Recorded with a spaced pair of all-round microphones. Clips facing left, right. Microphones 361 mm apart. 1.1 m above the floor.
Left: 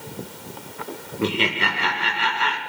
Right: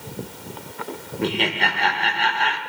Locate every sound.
1.2 s laughter: 10° left (ahead or behind), 0.7 m